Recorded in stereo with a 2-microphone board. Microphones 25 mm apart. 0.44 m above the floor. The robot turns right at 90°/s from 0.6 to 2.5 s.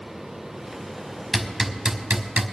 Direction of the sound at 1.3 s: 15° left (ahead or behind).